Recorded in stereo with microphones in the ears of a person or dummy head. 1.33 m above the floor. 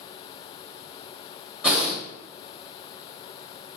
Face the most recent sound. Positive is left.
turn(degrees=-5)  # may be behind; listen again after turning